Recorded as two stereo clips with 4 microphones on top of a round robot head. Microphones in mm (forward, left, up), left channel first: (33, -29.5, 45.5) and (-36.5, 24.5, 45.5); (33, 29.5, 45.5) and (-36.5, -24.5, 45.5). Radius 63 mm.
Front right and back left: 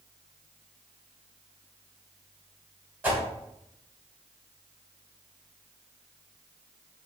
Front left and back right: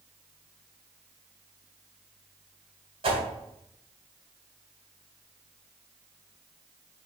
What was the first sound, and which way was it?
A whoosh, 150° right.